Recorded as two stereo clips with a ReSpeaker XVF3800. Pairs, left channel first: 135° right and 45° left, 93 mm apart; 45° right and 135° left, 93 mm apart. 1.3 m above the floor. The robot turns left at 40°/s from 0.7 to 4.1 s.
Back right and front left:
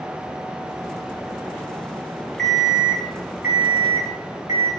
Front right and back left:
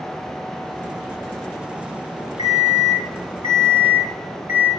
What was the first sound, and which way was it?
An alarm clock, 140° left.